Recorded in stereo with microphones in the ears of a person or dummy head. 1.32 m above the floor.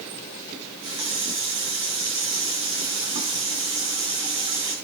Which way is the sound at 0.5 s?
25° right (ahead or behind).